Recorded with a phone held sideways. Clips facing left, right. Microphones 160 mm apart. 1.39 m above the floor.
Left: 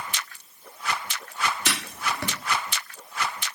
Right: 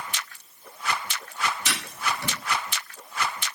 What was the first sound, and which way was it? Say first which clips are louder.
Writing: even; 60° left (ahead or behind).